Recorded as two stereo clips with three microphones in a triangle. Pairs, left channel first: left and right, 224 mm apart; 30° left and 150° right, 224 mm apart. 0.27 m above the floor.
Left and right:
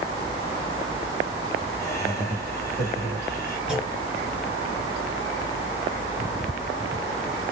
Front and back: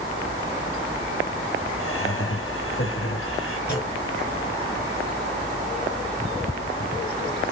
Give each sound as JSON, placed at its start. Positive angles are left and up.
{"t": 1.8, "sound": "laughter", "azimuth_deg": 15, "distance_m": 3.5}
{"t": 3.7, "sound": "a clunk", "azimuth_deg": -5, "distance_m": 3.0}